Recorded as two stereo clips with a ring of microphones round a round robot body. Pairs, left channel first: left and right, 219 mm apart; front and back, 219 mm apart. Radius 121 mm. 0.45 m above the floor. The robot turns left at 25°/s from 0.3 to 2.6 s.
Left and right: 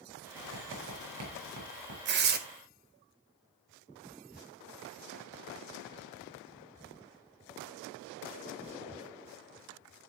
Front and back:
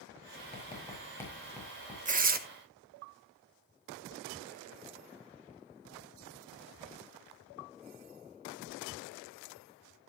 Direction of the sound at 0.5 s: 65° right.